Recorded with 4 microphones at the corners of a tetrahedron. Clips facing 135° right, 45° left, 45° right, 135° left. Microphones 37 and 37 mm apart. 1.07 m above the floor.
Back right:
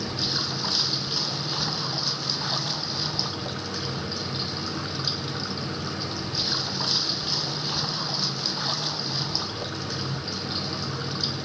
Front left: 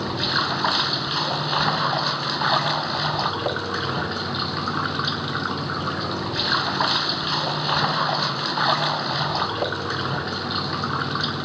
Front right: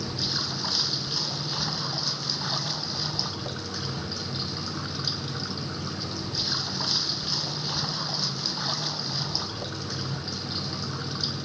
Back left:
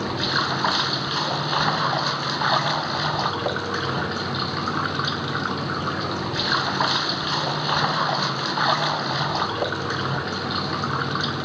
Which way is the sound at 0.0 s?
90° left.